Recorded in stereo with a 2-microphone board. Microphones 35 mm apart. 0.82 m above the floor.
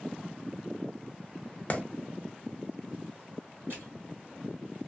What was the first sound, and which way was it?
A clap, 40° left (ahead or behind).